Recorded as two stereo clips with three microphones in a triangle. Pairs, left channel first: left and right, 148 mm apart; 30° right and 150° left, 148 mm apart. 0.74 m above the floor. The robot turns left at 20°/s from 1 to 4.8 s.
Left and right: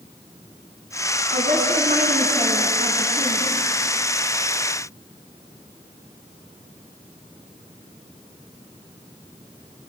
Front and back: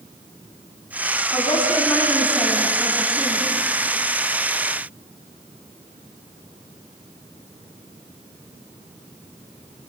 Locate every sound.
1.3 s a woman speaking: 90° right, 7.5 m; by 3.4 s 130° right, 7.5 m